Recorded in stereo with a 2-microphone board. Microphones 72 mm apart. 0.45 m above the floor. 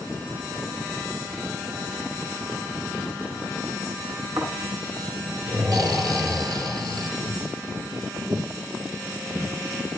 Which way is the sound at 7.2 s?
65° right (ahead or behind).